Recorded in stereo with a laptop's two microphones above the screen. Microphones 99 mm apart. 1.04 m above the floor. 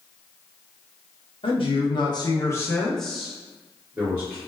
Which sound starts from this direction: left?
A man speaking, at 1.4 s.